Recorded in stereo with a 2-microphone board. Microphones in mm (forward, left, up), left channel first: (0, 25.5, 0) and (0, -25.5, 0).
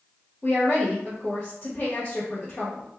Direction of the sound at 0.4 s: 35° left (ahead or behind).